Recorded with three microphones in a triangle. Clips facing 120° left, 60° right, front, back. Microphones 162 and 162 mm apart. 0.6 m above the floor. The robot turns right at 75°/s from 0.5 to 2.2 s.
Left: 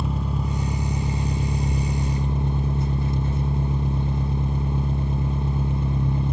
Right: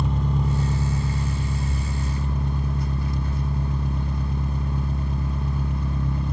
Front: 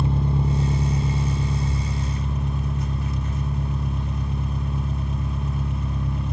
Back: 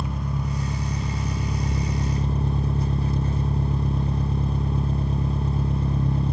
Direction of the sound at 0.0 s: 35° left.